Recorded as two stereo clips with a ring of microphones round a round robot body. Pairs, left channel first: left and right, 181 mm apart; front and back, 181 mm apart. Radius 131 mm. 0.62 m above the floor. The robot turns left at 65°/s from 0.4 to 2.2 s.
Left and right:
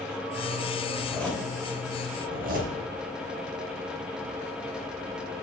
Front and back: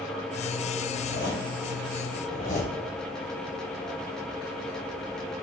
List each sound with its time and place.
0.9 s a zipper: 25° left, 2.5 m; by 2.8 s 55° right, 2.5 m